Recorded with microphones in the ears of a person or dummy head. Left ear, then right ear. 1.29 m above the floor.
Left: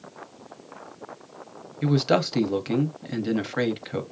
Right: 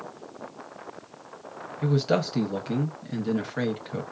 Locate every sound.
1.8 s a man speaking: 25° left (ahead or behind), 0.9 m